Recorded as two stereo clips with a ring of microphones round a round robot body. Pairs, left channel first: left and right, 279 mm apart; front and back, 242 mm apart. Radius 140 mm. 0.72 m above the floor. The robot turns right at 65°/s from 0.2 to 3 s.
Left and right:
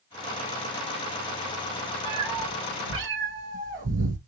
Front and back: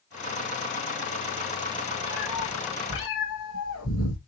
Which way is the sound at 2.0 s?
105° right.